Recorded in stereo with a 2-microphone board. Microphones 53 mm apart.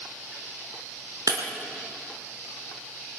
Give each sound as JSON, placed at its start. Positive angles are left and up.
{"t": 1.3, "sound": "breaking glass", "side_deg": -80, "distance_m": 3.0}